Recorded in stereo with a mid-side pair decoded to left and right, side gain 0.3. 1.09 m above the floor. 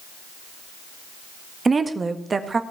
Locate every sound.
1.6 s a woman speaking: 45° right, 1.6 m